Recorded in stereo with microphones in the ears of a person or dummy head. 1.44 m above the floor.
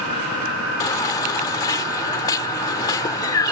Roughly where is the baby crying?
Centre.